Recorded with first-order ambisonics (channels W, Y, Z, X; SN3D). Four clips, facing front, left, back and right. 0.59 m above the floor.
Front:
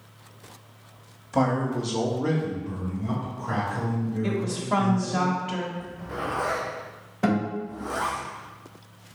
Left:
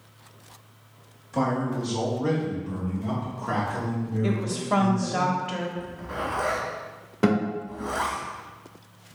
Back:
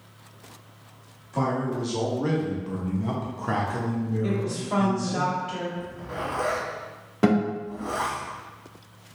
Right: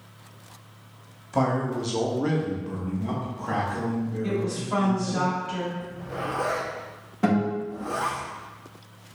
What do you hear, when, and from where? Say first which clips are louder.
1.3 s a man speaking: right 1 dB, front 2 dB; 30° right, 0.7 m; by 5.2 s 175° left, 1.6 m
4.2 s a woman speaking: left 1 dB, even; 75° left, 0.8 m
5.8 s a zipper: left 1 dB, even; 125° left, 1.6 m
7.2 s a guitar: even, back 3 dB; 145° left, 1.9 m